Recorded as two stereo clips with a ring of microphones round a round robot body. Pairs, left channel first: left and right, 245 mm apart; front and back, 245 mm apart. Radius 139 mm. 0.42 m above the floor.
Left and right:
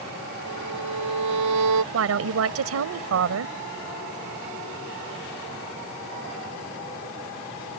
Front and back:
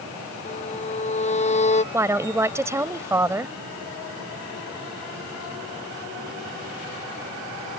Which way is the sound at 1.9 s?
100° right.